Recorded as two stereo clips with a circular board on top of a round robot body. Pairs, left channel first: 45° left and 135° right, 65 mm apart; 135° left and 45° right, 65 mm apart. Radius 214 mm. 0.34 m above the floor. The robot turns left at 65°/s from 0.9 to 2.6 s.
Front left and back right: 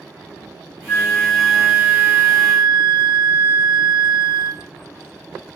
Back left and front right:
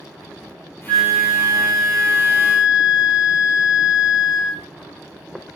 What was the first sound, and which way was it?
A flute, 10° right.